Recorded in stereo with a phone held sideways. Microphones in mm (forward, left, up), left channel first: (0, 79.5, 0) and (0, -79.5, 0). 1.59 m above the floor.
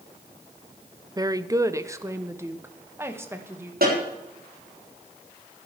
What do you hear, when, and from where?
1.2 s a woman speaking: 25° right (ahead or behind), 0.7 m; by 3.7 s 15° right (ahead or behind), 2 m
3.8 s a snare drum: 70° right (ahead or behind), 7 m